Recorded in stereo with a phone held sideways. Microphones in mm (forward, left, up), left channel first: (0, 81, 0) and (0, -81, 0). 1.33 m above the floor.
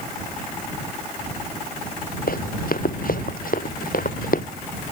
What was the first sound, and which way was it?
Running footsteps, 70° left (ahead or behind).